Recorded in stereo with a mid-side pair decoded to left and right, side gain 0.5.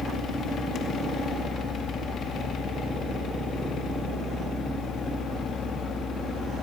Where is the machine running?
50° left, 2.5 m.